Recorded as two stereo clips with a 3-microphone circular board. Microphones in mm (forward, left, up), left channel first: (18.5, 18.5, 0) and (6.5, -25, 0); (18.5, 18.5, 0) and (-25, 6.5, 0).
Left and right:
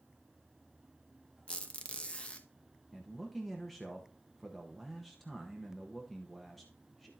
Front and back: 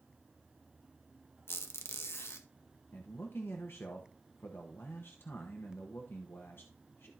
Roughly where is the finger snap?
I don't hear a finger snap.